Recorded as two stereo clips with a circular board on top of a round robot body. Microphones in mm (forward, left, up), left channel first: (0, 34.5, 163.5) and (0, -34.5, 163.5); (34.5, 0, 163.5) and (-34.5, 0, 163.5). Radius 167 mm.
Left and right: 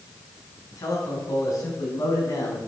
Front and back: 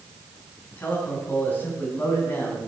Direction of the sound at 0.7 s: 65° left.